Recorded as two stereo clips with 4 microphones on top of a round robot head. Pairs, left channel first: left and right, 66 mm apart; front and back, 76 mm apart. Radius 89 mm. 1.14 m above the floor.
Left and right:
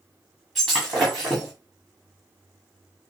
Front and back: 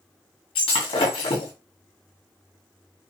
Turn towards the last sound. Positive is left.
turn(degrees=0)